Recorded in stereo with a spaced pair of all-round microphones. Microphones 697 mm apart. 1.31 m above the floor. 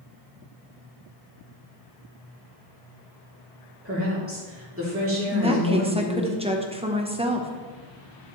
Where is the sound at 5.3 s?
10° right (ahead or behind), 1.0 m.